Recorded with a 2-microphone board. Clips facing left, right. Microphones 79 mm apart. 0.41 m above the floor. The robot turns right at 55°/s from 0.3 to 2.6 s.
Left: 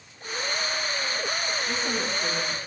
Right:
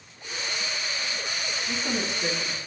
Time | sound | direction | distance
1.7 | a woman speaking | straight behind | 3.5 m